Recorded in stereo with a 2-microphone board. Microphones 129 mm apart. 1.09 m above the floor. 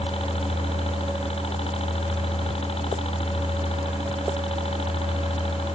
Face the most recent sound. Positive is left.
turn(degrees=50)  # may be behind; listen again after turning